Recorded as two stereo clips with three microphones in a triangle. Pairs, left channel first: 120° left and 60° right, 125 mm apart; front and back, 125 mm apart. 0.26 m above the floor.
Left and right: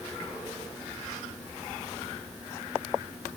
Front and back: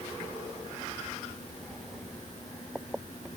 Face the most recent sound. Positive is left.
No sound to turn to.